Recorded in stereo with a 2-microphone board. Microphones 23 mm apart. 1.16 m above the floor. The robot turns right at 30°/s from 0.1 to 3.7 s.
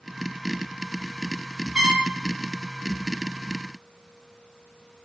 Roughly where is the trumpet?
Right.